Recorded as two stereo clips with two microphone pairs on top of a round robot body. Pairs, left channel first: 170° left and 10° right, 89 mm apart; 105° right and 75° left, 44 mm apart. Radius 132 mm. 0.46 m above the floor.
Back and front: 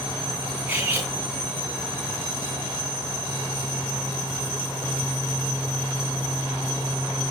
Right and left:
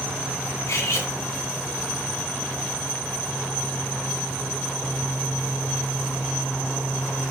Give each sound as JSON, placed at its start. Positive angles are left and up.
{"t": 0.7, "sound": "cutlery clinking", "azimuth_deg": -85, "distance_m": 3.5}